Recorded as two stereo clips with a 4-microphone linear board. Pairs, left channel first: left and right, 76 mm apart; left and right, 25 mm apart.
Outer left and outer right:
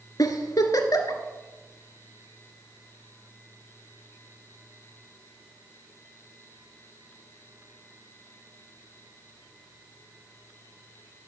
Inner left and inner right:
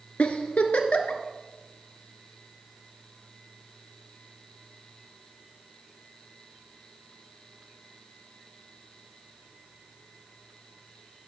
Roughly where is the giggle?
Left.